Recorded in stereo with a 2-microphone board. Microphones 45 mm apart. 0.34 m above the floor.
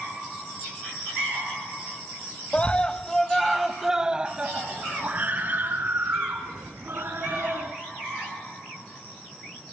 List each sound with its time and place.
2.5 s a scream: 30° left (ahead or behind), 1.6 m; by 7.7 s 55° right (ahead or behind), 4 m